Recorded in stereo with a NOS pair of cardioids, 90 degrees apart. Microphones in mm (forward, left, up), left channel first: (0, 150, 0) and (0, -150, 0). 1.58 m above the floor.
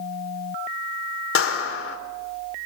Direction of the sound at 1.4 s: 45° left.